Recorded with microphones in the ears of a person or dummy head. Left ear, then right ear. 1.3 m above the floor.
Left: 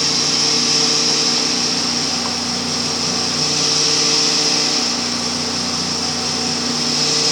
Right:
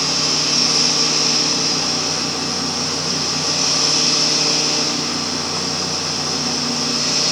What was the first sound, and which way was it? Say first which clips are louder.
A fan: left 1 dB; 65° left (ahead or behind).